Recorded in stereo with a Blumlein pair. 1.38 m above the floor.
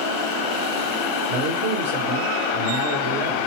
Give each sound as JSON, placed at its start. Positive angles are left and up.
{"t": 1.3, "sound": "a man speaking", "azimuth_deg": -55, "distance_m": 1.4}